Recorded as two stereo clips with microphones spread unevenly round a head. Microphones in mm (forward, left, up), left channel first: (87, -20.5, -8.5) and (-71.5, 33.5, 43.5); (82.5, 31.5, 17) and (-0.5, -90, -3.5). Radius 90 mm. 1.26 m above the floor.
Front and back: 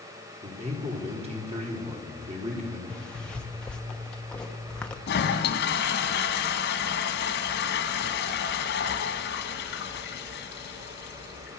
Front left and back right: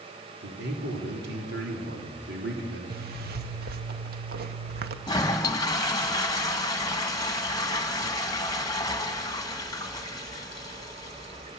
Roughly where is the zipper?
Right.